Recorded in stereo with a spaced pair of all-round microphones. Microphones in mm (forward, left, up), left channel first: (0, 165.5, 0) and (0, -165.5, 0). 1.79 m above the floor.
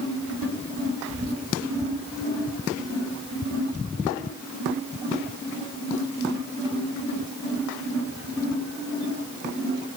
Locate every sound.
1.1 s whispering: 45° right (ahead or behind), 8 m